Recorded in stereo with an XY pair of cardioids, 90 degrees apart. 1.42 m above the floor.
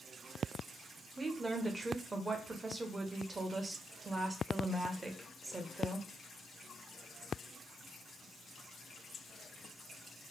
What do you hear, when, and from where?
1.2 s a woman speaking: 25° right, 1.0 m